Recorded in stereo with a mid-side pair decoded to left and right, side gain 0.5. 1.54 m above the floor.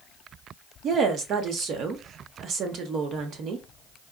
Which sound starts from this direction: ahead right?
A woman speaking, at 0.8 s.